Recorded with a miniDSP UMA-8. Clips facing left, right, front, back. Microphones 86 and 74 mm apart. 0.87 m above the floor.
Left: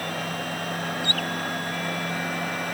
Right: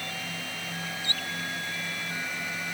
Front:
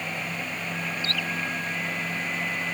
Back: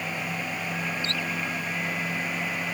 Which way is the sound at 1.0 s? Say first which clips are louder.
Left 7 dB, even; 115° left.